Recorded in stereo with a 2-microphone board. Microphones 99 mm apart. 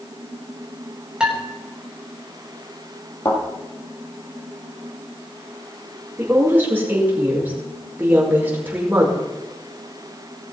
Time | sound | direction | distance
1.2 | dishes clattering | 5° right (ahead or behind) | 3.5 m
3.2 | a thud | 45° left (ahead or behind) | 5.5 m
6.2 | a woman speaking | 20° right (ahead or behind) | 5 m